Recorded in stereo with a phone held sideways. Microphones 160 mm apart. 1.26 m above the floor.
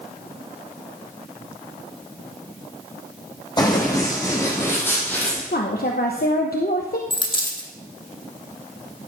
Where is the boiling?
No boiling in this recording.